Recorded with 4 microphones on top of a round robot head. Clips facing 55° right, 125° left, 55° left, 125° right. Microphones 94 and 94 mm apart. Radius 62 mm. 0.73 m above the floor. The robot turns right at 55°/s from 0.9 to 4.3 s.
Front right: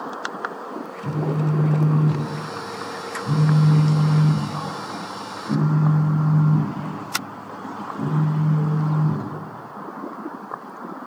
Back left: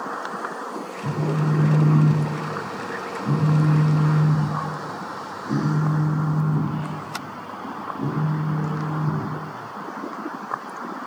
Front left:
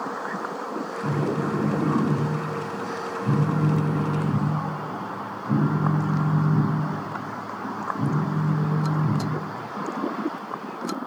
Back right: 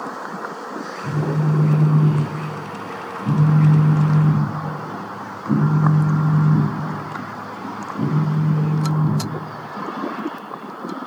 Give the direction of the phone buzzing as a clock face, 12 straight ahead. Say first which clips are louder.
Even, back right 3 dB; 10 o'clock.